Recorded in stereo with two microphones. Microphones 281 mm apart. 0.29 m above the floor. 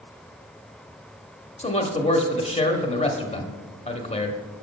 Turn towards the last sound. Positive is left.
turn(degrees=25)  # may be behind; listen again after turning